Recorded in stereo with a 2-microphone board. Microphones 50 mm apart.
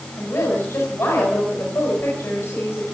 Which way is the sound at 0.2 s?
55° left (ahead or behind).